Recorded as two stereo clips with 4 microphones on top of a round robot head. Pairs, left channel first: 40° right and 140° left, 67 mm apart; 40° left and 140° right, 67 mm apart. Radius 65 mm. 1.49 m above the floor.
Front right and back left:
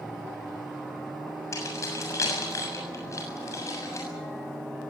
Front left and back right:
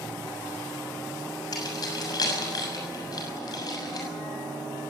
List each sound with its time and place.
1.5 s keys jangling: 5° left, 7 m